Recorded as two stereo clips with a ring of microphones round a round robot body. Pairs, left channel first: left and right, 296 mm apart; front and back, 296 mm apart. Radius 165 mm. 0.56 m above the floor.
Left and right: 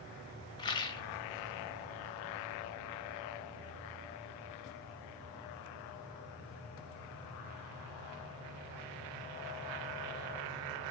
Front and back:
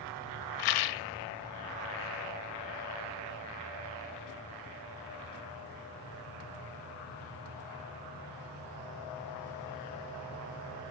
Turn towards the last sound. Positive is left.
turn(degrees=15)